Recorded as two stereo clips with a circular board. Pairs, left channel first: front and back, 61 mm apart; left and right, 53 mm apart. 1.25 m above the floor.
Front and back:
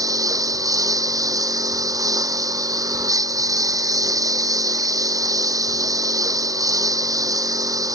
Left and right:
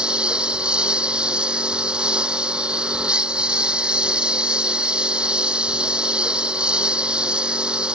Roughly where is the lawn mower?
Behind.